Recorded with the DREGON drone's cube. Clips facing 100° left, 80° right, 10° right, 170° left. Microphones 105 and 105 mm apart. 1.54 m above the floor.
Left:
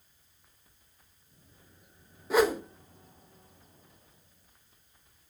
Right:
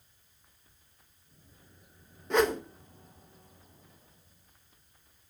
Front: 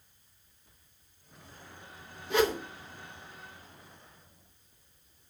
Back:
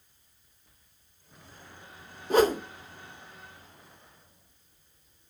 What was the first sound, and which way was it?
A whoosh, straight behind.